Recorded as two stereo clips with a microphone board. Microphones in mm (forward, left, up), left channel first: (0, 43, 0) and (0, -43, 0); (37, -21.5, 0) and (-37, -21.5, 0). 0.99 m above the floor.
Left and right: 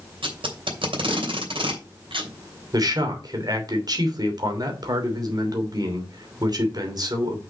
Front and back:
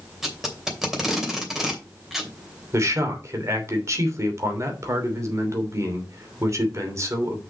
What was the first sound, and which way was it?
Tape being pulled, 95° right.